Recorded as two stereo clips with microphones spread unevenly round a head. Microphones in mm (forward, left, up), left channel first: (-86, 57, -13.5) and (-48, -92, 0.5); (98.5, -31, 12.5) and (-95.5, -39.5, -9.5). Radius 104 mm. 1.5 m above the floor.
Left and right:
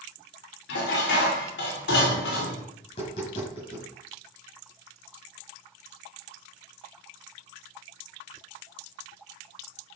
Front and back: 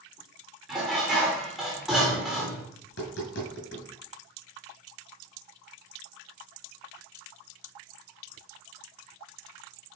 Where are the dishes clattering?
90° left, 3 m.